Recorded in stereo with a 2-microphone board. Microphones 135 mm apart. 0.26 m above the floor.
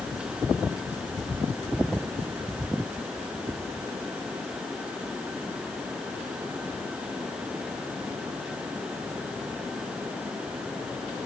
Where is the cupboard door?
No cupboard door in this recording.